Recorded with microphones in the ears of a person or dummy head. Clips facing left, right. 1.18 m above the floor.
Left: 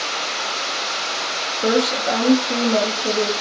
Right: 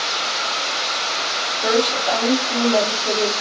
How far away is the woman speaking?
About 2 m.